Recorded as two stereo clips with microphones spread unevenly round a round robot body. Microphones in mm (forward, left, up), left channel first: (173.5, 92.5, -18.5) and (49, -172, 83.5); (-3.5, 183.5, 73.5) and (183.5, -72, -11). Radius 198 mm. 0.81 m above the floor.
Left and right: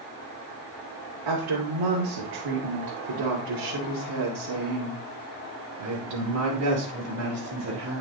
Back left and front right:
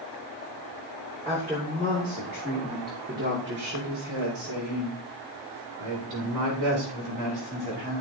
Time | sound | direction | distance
1.2 | a woman speaking | 135° right | 3 m